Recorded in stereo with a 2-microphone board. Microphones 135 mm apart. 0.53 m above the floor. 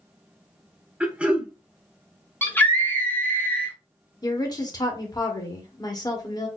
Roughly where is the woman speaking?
Left.